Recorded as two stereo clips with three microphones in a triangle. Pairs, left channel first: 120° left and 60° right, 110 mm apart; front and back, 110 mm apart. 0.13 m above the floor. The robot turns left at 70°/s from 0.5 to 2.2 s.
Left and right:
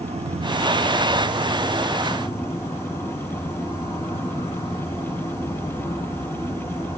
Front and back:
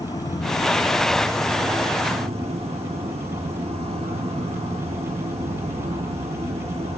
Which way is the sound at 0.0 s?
55° right.